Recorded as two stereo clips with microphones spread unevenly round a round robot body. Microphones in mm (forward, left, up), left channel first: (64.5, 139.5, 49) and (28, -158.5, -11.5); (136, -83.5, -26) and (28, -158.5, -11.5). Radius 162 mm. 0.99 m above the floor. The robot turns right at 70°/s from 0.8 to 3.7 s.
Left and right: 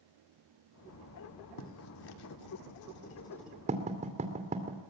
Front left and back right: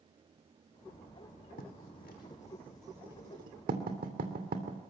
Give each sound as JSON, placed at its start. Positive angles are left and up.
{"t": 1.6, "sound": "writing", "azimuth_deg": 45, "distance_m": 2.0}